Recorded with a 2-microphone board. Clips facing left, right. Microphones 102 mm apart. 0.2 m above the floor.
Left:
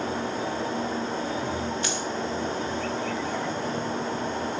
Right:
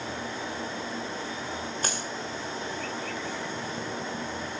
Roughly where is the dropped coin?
Right.